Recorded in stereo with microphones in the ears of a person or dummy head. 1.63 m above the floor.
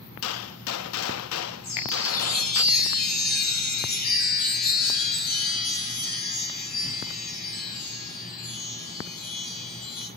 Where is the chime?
45° left (ahead or behind), 2.5 m.